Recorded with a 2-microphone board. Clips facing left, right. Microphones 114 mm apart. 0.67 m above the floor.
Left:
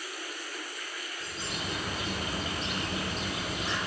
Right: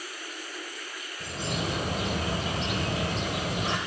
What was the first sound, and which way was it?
A bird, 55° right (ahead or behind).